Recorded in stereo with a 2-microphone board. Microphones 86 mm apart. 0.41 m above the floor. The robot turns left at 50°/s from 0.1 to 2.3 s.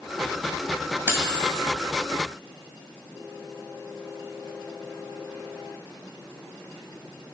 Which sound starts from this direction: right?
Cutlery clinking, at 1.1 s.